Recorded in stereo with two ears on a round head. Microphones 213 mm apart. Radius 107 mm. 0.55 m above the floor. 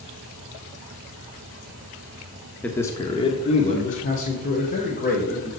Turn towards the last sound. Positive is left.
turn(degrees=40)  # may be behind; listen again after turning